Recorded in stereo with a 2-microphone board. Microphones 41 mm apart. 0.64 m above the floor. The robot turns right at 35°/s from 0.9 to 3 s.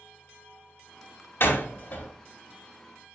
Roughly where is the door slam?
Left.